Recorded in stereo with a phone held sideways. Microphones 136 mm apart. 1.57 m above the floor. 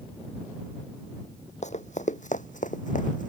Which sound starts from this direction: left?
Running footsteps, at 1.6 s.